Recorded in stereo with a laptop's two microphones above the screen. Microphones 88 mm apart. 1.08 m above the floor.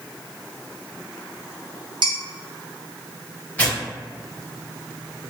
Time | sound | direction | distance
2.0 | dishes clattering | 60° right (ahead or behind) | 0.9 m
3.6 | tearing paper | 20° left (ahead or behind) | 1.2 m